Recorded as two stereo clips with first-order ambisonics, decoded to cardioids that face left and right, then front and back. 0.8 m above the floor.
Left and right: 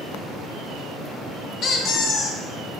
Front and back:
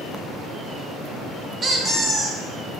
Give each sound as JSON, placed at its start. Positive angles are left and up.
{"t": 1.6, "sound": "a squeak", "azimuth_deg": 120, "distance_m": 0.5}